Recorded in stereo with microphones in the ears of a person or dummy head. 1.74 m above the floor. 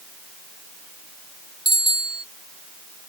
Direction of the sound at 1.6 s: 25° left (ahead or behind).